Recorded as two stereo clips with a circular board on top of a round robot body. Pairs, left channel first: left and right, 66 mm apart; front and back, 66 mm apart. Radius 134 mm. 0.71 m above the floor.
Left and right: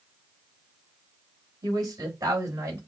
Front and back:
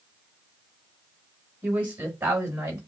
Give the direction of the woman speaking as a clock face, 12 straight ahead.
4 o'clock.